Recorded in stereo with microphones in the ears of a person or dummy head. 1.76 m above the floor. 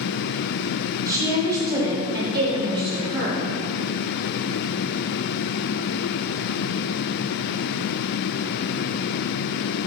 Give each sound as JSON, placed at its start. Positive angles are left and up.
{"t": 1.1, "sound": "a woman speaking", "side_deg": -15, "distance_m": 4.0}